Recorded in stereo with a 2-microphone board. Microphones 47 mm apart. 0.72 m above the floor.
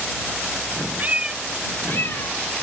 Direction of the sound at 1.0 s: 40° right (ahead or behind).